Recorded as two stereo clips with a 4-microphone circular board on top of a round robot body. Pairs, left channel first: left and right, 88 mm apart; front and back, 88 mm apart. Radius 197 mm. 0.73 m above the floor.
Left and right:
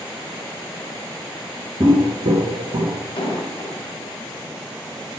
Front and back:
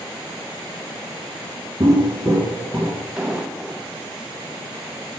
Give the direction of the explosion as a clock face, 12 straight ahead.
9 o'clock.